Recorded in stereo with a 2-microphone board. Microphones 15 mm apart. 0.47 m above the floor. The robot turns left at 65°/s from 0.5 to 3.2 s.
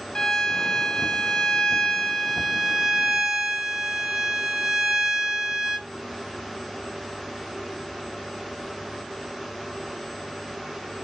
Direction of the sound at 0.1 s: 130° left.